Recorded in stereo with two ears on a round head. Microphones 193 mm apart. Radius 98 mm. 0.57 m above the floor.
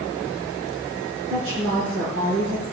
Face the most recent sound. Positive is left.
turn(degrees=-55)  # may be behind; listen again after turning